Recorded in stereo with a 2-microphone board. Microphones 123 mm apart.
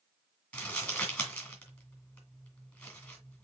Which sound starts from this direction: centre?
Crumpling, at 0.5 s.